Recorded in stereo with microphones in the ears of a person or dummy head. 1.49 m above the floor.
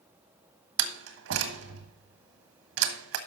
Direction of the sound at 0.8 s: 70° right (ahead or behind).